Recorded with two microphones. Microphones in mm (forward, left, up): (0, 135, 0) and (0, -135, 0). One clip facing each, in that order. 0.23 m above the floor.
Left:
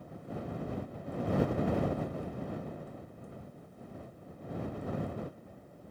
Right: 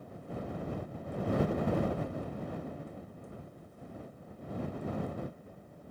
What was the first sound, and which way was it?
Only background noise.